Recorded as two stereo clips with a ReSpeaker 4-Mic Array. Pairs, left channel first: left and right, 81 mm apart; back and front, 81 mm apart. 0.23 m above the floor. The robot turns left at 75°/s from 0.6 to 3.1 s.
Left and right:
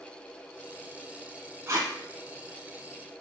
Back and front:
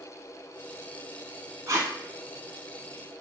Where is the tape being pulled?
40° right, 0.9 m; by 1.9 s 60° right, 0.9 m.